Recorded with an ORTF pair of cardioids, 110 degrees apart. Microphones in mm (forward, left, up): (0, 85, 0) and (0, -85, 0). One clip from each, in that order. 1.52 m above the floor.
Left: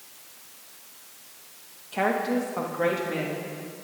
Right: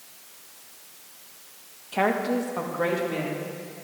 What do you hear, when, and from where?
1.9 s a woman speaking: 20° right, 1.9 m; by 3.7 s 5° left, 4 m